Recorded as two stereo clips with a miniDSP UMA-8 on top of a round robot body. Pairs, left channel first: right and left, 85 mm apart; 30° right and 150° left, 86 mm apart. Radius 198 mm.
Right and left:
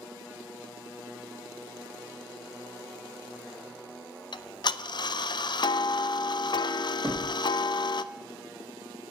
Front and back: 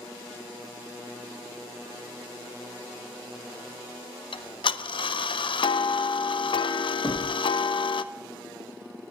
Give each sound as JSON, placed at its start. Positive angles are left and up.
{"t": 4.3, "sound": "ticking", "azimuth_deg": -55, "distance_m": 0.6}
{"t": 7.0, "sound": "knocking", "azimuth_deg": 15, "distance_m": 1.9}